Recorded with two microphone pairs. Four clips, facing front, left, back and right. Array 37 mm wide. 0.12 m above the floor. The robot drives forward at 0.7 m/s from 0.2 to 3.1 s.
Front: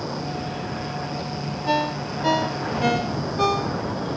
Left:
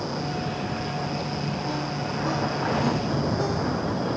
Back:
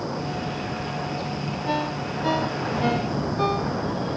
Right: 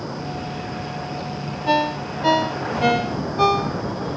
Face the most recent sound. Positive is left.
turn(degrees=-80)